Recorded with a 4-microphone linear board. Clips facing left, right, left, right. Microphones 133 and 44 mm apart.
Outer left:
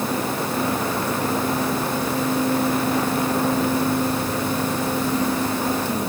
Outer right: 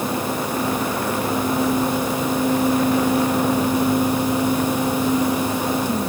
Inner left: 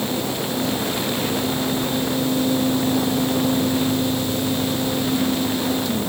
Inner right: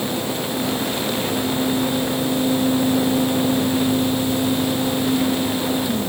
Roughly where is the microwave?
No microwave in this recording.